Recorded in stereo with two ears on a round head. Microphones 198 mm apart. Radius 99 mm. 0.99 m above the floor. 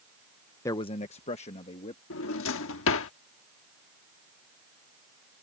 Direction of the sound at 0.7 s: 15° left (ahead or behind).